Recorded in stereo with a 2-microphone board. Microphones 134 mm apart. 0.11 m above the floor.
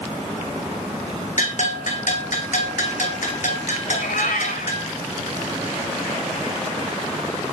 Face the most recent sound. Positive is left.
turn(degrees=80)